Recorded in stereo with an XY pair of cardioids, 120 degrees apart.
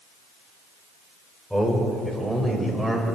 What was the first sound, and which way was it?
A man speaking, straight ahead.